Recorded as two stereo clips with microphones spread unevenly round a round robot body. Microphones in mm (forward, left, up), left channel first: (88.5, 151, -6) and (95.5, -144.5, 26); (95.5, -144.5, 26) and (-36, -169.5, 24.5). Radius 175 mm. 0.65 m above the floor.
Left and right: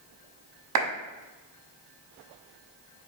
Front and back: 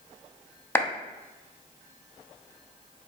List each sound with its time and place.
0.8 s a clap: 65° right, 0.8 m